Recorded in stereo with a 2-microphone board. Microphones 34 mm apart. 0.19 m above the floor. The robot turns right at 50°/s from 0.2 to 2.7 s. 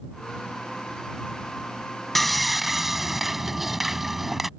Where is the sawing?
5° left (ahead or behind); by 4.5 s 5° right (ahead or behind).